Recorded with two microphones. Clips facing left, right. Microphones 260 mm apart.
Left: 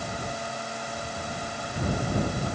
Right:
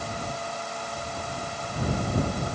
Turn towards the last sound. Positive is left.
No sound to turn to.